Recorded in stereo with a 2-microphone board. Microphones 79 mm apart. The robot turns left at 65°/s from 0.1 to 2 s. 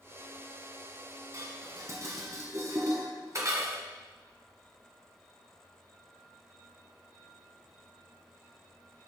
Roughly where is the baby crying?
No baby crying in this recording.